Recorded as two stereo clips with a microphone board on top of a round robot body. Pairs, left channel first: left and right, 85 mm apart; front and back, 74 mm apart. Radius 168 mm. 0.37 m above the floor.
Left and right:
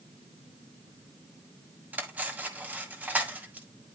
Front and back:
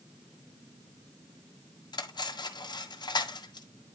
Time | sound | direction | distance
1.9 | cutlery clinking | 20° right | 1.8 m